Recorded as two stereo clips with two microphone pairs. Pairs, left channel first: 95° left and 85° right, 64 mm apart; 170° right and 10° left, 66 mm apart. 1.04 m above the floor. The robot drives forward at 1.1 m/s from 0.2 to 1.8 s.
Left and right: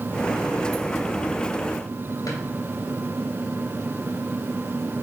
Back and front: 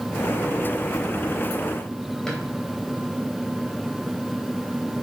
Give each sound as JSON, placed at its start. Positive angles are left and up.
{"t": 2.3, "sound": "a drawer", "azimuth_deg": 110, "distance_m": 2.5}